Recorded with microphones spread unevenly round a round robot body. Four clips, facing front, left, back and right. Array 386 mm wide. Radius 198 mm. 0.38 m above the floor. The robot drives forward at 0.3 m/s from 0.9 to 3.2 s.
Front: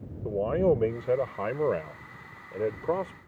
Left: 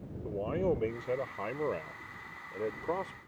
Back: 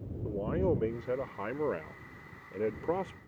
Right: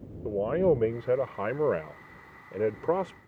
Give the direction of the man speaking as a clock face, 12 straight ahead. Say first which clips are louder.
Right 7 dB, front 6 dB; 1 o'clock.